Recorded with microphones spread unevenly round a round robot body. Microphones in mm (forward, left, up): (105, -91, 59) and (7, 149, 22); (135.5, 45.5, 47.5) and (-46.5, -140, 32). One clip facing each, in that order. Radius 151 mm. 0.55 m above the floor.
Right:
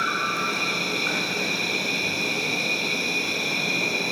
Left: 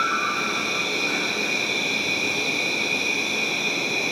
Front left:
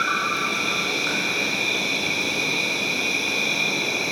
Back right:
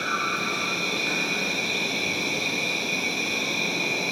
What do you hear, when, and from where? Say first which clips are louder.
0.0 s an insect: left 1 dB, front left 1 dB; 25° right, 2 m